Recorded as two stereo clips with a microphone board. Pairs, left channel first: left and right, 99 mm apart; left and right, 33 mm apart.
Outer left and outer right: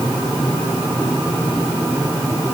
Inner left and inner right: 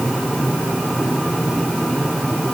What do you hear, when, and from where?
Only background noise.